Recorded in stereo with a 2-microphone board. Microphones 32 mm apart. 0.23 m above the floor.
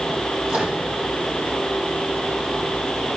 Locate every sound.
0.5 s a microwave: 55° right (ahead or behind), 6.5 m